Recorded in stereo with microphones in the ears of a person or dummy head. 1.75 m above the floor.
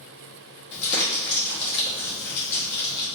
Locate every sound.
0.7 s crumpling: 65° left (ahead or behind), 1.8 m